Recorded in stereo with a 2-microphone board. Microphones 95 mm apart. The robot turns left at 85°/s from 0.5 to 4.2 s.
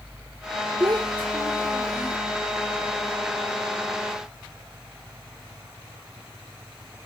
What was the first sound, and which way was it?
A child speaking, 50° right.